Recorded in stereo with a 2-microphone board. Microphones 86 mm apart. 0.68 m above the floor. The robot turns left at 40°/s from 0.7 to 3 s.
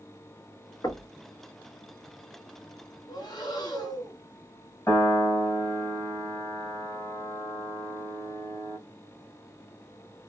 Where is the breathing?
50° left (ahead or behind), 1.5 m.